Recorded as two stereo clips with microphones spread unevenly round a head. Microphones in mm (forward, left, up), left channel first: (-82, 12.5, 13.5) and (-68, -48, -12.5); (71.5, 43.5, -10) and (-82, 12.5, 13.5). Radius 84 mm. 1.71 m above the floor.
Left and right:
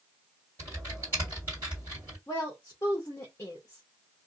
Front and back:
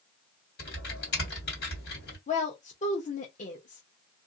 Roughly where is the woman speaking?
Ahead left.